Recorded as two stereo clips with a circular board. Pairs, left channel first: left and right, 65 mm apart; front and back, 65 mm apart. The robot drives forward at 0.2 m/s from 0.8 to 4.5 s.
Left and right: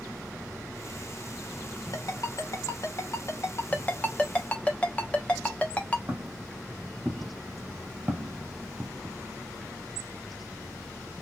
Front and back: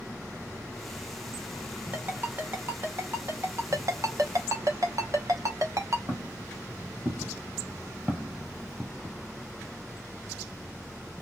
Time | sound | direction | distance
1.9 | a ringtone | 120° left | 1.0 m
3.7 | a ringtone | 150° left | 0.7 m
6.1 | footsteps | 145° right | 2.0 m